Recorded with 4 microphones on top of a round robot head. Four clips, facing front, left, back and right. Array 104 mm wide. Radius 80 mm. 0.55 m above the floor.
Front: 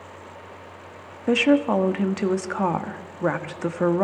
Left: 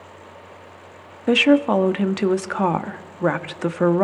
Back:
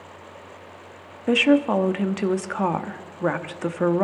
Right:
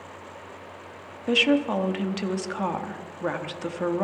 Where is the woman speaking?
95° left, 0.7 m.